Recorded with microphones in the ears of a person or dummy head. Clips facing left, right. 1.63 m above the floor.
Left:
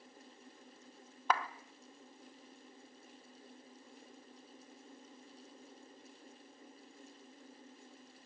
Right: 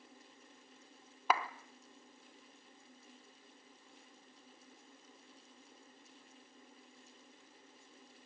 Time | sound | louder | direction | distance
1.3 | a clap | right 1 dB | 5° right (ahead or behind) | 0.9 m